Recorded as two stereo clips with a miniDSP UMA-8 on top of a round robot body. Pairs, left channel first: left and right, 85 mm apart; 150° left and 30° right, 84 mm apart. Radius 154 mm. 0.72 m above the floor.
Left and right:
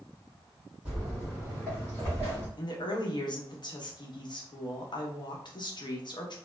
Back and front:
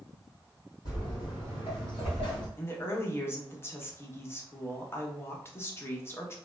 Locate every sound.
0.8 s footsteps: 170° right, 1.6 m; by 2.5 s 125° left, 0.8 m
2.6 s a woman speaking: 95° left, 0.9 m